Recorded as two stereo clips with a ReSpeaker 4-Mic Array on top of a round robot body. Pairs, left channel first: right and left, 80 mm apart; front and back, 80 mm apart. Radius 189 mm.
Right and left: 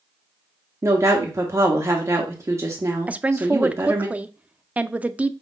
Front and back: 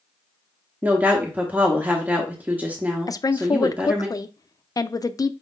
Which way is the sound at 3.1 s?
25° left.